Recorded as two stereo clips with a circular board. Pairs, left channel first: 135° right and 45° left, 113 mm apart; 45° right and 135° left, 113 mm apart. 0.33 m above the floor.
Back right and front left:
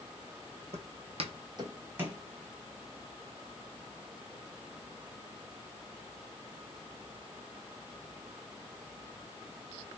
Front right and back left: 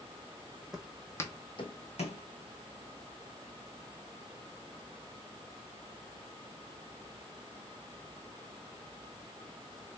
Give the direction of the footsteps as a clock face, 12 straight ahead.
10 o'clock.